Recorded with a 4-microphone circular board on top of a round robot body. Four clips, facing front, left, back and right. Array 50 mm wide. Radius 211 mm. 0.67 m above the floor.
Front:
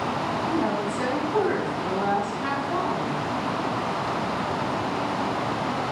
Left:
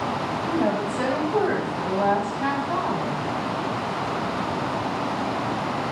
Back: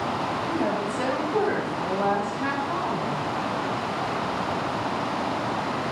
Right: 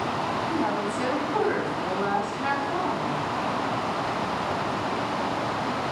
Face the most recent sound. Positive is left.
turn(degrees=95)